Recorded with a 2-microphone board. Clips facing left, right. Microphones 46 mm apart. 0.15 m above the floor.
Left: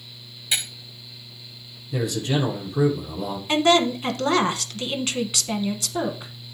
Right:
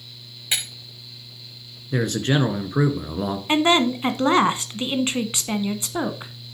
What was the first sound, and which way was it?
Breaking glass, 30° right (ahead or behind).